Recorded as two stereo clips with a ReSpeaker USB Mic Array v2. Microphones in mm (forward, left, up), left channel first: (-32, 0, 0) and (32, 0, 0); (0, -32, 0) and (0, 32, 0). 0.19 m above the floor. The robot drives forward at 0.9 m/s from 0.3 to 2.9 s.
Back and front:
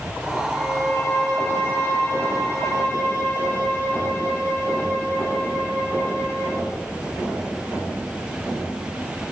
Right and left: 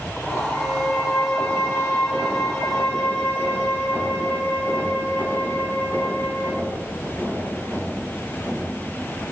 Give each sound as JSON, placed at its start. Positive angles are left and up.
{"t": 0.5, "sound": "a violin", "azimuth_deg": -115, "distance_m": 5.0}